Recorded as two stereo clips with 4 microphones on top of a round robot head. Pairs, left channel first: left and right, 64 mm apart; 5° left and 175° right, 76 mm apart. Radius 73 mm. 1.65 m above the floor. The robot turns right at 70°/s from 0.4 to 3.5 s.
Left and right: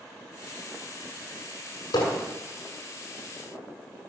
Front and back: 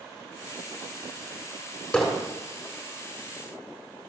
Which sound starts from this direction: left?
Hammering, at 1.9 s.